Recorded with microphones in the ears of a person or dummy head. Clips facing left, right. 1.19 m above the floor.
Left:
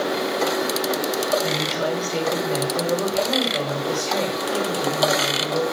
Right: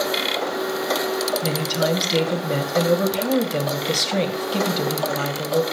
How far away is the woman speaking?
About 1.9 m.